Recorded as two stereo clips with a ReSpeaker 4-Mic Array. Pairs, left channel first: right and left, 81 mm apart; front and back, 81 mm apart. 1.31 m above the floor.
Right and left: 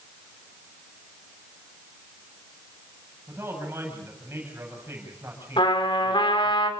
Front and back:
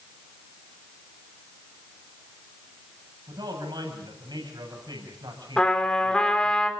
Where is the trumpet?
80° right, 3 m.